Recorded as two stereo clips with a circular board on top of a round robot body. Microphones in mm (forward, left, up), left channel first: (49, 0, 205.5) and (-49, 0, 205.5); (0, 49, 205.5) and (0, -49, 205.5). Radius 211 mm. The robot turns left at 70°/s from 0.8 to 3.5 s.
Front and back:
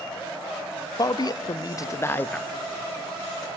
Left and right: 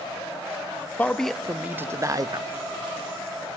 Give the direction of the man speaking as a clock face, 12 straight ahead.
11 o'clock.